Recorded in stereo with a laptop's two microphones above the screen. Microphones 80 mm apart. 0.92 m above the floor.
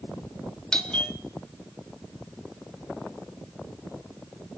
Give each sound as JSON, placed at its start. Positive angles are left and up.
{"t": 0.7, "sound": "a doorbell", "side_deg": 10, "distance_m": 1.1}